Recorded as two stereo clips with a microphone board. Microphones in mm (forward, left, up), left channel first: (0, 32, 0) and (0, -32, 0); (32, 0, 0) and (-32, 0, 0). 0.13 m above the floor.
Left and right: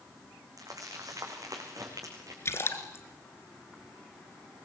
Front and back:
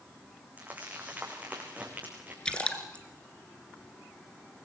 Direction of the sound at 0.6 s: 115° right.